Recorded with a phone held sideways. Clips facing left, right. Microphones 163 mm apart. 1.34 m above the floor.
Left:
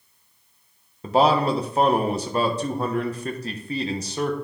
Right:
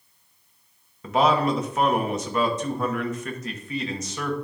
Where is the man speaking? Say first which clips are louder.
Left 2 dB; 35° left (ahead or behind), 1.0 m.